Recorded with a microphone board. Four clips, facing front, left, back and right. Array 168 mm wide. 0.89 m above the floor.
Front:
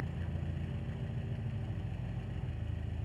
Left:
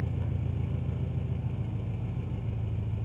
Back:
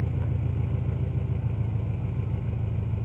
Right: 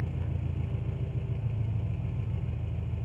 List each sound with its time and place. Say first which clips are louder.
0.0 s an engine running: left 2 dB, back 10 dB; 175° left, 3 m